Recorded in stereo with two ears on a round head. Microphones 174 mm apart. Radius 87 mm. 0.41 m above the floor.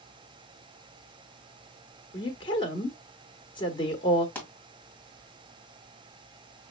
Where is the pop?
10° left (ahead or behind), 1.8 m.